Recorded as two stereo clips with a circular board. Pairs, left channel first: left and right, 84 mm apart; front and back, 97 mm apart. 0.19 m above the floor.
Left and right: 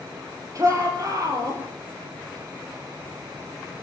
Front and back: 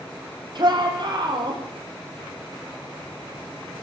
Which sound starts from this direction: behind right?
A shout, at 0.6 s.